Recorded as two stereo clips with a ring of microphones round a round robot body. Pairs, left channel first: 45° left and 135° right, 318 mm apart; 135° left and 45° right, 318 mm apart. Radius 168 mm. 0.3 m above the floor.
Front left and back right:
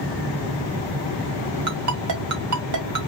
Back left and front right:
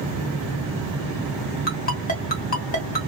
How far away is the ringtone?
About 1.9 m.